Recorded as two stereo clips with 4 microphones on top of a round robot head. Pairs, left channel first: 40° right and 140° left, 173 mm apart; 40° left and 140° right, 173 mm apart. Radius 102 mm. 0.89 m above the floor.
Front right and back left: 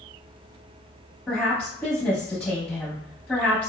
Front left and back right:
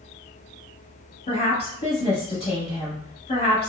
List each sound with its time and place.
1.3 s a woman speaking: 30° left, 1.0 m